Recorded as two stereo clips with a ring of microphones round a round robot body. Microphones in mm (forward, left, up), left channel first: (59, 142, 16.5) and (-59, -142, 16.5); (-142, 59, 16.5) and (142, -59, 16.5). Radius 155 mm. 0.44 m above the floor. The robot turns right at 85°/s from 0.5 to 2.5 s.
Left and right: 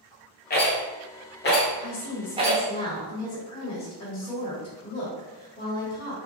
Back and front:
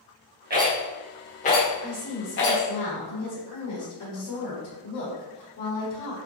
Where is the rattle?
20° left, 1.1 m; by 2.6 s 170° right, 1.1 m.